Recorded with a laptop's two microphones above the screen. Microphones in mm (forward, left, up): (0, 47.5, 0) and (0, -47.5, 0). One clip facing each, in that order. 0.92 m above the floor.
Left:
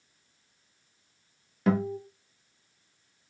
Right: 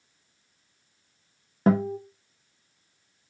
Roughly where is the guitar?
Right.